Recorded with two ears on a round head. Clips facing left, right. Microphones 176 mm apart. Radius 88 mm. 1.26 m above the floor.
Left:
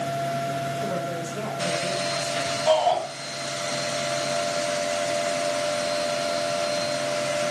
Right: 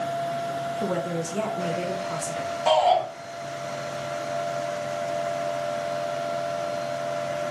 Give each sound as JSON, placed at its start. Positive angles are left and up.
{"t": 0.8, "sound": "a woman speaking", "side_deg": -70, "distance_m": 1.1}
{"t": 2.7, "sound": "a shout", "side_deg": -80, "distance_m": 2.5}